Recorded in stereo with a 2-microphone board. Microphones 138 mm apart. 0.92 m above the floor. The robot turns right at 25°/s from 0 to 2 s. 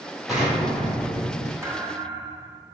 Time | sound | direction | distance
0.3 | an explosion | 5° right | 1.8 m
1.6 | a thud | 20° right (ahead or behind) | 0.8 m